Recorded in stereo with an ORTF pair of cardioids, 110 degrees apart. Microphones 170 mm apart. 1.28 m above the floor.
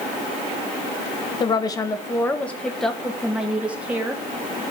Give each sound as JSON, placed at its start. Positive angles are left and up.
{"t": 1.4, "sound": "a woman speaking", "azimuth_deg": 30, "distance_m": 1.2}